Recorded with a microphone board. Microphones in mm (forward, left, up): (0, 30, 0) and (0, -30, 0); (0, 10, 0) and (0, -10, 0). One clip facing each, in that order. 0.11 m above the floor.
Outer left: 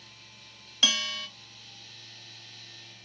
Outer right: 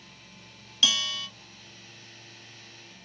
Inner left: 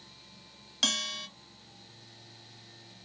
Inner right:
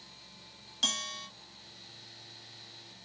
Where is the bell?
25° left (ahead or behind), 1.5 m.